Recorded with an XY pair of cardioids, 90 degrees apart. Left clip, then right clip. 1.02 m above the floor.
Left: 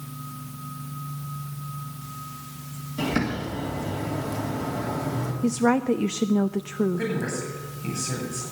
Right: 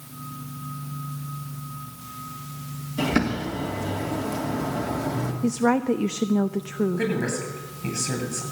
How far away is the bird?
About 3 m.